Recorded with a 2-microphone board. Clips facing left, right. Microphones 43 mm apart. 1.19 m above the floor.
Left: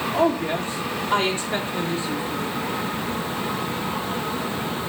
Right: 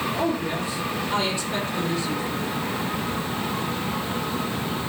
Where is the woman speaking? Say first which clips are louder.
Left 4 dB; 50° left (ahead or behind), 3 m; by 2.6 s 20° left (ahead or behind), 3 m.